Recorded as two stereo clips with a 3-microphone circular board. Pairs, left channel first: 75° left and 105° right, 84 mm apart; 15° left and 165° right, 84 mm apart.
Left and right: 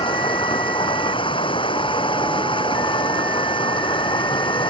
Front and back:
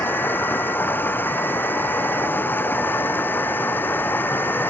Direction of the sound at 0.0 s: 80° left.